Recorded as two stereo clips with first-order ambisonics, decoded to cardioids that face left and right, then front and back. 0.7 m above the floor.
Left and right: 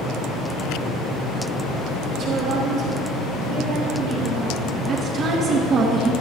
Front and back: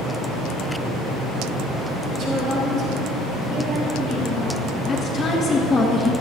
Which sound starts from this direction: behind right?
A woman speaking, at 2.1 s.